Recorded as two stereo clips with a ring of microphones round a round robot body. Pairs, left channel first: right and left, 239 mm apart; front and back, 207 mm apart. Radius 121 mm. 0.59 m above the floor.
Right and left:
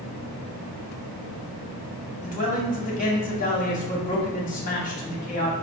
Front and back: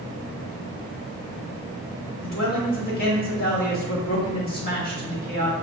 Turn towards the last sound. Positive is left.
turn(degrees=-40)